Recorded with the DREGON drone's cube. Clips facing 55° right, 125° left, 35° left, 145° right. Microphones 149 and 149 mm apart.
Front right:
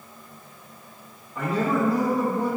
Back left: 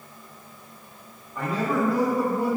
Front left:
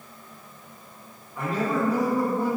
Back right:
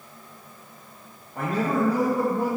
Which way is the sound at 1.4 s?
140° right.